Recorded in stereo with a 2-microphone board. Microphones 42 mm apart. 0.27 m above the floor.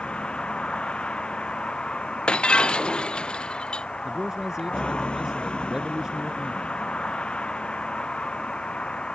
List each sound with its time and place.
0.0 s a vehicle: 25° left (ahead or behind)
2.3 s breaking glass: 25° left (ahead or behind)
4.0 s a man speaking: 15° right (ahead or behind)